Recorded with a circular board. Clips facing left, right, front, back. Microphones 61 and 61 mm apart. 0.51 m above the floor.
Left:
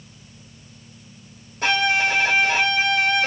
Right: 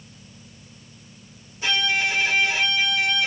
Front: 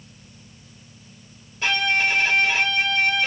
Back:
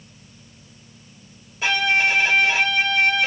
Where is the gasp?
I don't hear a gasp.